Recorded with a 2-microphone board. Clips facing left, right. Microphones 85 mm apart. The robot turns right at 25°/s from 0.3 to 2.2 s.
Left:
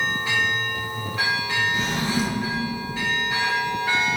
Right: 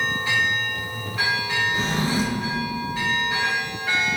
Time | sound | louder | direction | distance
1.7 | a drawer | right 1 dB | 35° right (ahead or behind) | 1.8 m